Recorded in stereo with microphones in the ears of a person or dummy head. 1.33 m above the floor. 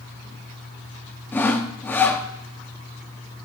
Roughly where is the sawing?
Centre.